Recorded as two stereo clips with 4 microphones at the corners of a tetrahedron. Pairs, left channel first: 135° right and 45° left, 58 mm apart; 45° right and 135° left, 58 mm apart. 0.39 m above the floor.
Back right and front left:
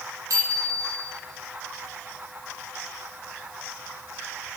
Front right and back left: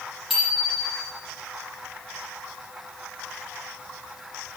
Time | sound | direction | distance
0.3 | a bicycle bell | 45° left | 8 m